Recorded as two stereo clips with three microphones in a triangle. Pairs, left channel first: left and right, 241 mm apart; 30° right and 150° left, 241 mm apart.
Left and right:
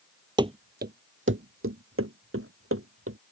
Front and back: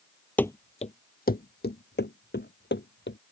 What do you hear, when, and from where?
0.4 s running footsteps: 100° right; by 3.2 s 70° right